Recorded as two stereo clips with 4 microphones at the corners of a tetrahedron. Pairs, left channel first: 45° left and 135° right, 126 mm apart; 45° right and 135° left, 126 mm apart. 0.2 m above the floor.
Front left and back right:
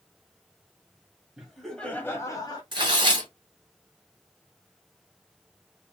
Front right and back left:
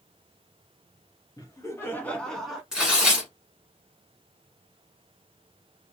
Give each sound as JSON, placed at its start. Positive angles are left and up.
{"t": 1.4, "sound": "laughter", "azimuth_deg": -55, "distance_m": 1.1}
{"t": 2.7, "sound": "tearing paper", "azimuth_deg": -145, "distance_m": 1.3}